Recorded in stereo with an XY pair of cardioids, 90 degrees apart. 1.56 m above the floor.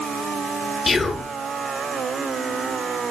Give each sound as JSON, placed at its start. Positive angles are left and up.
{"t": 0.9, "sound": "whispering", "azimuth_deg": 30, "distance_m": 0.5}